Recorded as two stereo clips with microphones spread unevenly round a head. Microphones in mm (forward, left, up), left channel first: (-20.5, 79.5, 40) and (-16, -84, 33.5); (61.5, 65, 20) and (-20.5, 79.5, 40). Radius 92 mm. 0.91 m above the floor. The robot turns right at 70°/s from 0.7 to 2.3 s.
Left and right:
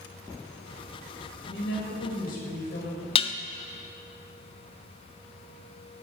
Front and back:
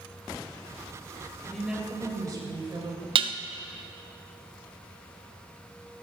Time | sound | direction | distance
1.5 | a woman speaking | 70° left | 4.5 m
3.1 | dishes clattering | 150° left | 0.8 m